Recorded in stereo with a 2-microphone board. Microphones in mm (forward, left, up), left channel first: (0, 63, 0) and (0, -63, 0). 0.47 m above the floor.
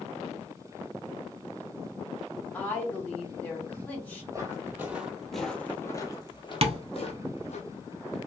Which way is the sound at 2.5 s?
15° left (ahead or behind).